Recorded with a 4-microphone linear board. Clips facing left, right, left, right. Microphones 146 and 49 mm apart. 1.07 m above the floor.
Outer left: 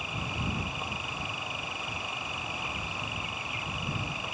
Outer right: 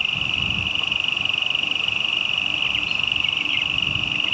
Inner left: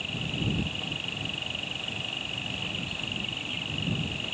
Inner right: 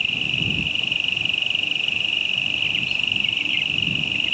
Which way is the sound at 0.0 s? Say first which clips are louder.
Outer right 1 dB, inner right 9 dB; 80° right.